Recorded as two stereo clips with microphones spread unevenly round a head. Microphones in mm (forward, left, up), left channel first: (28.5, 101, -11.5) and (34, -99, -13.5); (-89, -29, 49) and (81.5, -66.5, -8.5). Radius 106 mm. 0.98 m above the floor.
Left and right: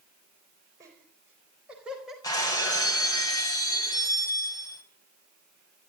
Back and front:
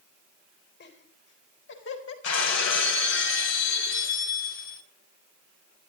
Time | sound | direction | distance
0.8 | laughter | 165° right | 4.5 m
2.2 | breaking glass | 165° left | 2.5 m